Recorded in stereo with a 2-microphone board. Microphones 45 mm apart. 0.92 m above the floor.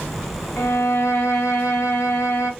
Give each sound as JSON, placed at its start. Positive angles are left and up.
{"t": 0.6, "sound": "a violin", "side_deg": 70, "distance_m": 0.8}